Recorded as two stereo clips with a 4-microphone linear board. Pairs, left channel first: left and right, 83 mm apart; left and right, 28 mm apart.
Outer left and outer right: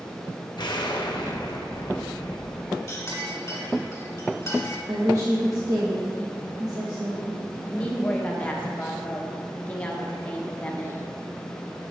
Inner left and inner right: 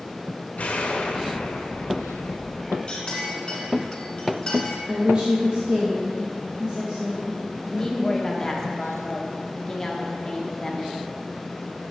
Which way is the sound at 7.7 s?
15° left (ahead or behind).